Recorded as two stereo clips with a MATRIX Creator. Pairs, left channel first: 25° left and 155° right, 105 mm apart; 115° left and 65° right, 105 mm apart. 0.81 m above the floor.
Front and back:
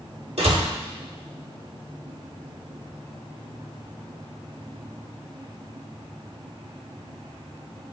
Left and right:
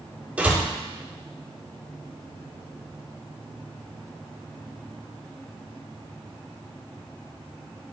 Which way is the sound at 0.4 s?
145° right.